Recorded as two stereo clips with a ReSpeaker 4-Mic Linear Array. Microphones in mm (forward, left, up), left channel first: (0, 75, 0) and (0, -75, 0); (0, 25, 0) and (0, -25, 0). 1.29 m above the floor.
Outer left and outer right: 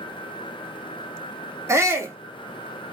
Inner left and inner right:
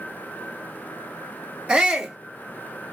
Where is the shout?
20° right (ahead or behind), 1.0 m.